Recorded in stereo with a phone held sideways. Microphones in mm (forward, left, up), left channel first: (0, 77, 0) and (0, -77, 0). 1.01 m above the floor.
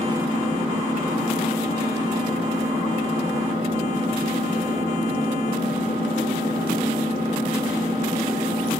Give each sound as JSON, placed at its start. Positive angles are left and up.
{"t": 0.0, "sound": "an engine running", "side_deg": -50, "distance_m": 9.0}